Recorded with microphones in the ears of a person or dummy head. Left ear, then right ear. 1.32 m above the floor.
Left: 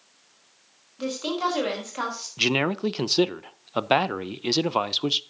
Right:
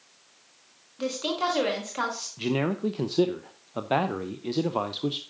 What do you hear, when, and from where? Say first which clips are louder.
1.0 s a woman speaking: left 1 dB; 5° right (ahead or behind), 4.5 m
2.4 s a man speaking: left 6 dB; 55° left (ahead or behind), 0.7 m